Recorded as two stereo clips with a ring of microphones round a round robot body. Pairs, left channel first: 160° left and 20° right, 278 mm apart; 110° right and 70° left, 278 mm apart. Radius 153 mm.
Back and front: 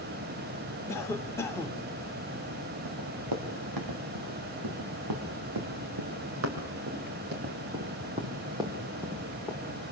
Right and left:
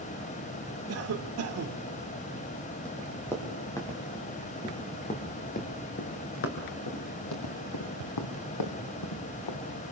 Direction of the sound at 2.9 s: 25° right.